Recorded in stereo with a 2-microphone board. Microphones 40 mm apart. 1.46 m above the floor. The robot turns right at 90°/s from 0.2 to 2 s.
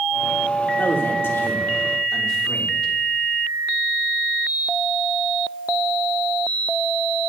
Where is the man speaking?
55° left, 3.5 m; by 2.9 s 160° left, 3.5 m.